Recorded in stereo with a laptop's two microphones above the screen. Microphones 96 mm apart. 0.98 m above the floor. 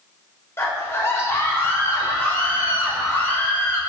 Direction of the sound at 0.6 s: 25° left (ahead or behind).